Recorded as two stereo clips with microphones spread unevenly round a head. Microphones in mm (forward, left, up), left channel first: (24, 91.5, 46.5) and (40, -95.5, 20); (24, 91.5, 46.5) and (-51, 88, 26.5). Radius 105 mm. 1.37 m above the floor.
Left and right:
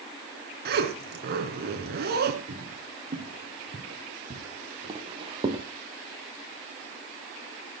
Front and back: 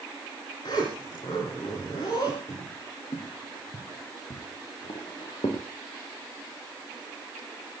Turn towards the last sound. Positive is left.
turn(degrees=-15)